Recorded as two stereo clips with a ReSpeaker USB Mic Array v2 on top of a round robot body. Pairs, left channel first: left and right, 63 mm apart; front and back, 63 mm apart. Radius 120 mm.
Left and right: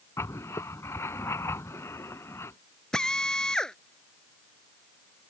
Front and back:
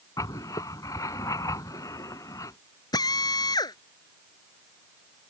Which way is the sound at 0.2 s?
40° left.